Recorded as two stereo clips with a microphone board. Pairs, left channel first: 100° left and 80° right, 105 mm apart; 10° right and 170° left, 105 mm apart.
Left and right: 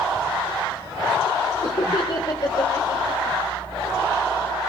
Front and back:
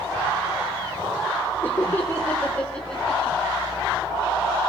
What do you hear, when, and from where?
1.6 s laughter: 55° left, 2.5 m; by 3.4 s 75° left, 1.9 m